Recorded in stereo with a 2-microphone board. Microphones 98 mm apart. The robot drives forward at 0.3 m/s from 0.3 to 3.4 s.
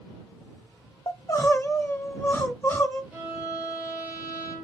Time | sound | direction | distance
1.1 | crying | 30° left (ahead or behind) | 0.7 m
3.1 | a violin | 25° right (ahead or behind) | 1.7 m